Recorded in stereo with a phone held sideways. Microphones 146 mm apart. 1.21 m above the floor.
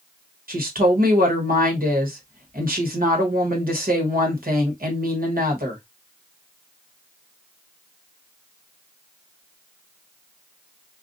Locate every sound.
0.5 s a woman speaking: 80° right, 1.2 m